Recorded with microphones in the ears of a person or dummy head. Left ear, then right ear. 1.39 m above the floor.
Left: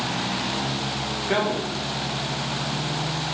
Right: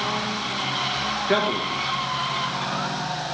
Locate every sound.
1.3 s a man speaking: 20° right (ahead or behind), 0.5 m